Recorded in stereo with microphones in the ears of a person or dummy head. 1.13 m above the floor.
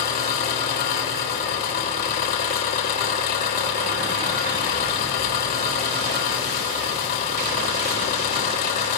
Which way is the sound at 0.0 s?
45° left (ahead or behind).